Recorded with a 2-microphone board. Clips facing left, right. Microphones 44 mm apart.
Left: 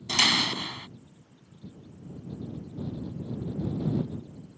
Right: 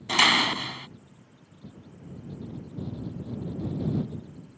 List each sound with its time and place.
0.1 s a door slam: 30° right (ahead or behind)